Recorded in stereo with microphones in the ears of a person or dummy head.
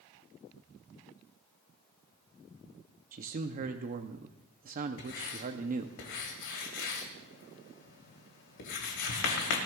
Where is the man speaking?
45° right (ahead or behind), 0.7 m.